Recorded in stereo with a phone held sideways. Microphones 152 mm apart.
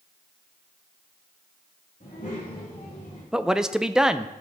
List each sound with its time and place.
2.0 s a child speaking: 55° left (ahead or behind), 5 m; by 3.2 s 45° left (ahead or behind), 6 m
3.3 s a man speaking: 5° right (ahead or behind), 0.5 m